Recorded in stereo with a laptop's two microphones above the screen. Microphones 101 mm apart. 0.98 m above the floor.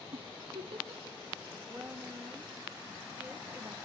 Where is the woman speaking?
20° right (ahead or behind), 1.2 m.